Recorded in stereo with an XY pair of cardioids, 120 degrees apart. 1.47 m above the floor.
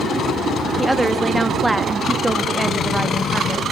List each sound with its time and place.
0.8 s a woman speaking: 10° right, 2 m